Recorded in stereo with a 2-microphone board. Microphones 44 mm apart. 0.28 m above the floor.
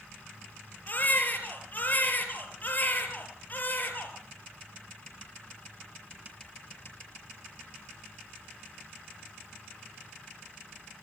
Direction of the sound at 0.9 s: 40° left (ahead or behind).